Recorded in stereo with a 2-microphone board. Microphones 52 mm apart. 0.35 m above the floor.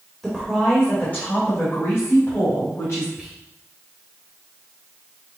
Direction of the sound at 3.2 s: 10° right (ahead or behind).